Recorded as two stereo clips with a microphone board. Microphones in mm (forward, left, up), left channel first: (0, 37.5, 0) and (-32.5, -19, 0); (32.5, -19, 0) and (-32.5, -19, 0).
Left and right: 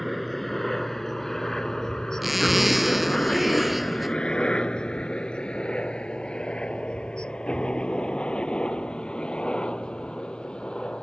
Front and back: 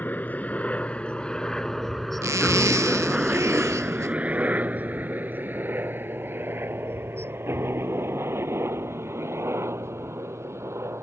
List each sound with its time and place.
0.0 s a helicopter: 25° right; by 11.0 s 135° left
2.2 s a zipper: 155° left